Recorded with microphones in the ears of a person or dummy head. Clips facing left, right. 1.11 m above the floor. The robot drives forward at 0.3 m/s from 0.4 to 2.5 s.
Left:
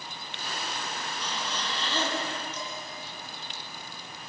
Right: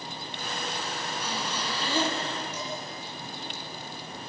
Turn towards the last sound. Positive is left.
turn(degrees=-15)  # may be behind; listen again after turning